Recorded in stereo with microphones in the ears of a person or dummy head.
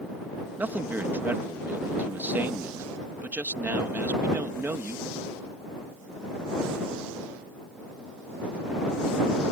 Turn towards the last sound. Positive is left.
turn(degrees=-5)  # may be behind; listen again after turning